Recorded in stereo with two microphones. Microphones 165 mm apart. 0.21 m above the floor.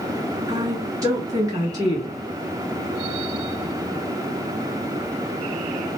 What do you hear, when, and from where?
0.5 s a woman speaking: 20° right (ahead or behind), 1.2 m